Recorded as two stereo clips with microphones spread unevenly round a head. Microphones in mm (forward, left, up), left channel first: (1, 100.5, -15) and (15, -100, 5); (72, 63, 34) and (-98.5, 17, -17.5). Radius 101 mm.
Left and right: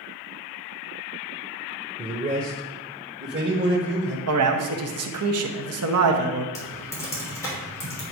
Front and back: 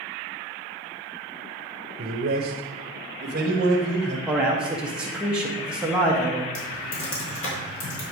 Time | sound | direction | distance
2.0 | a man speaking | 150° right | 0.9 m
4.3 | a man speaking | 85° right | 1.2 m
6.5 | typing on a keyboard | 15° left | 3 m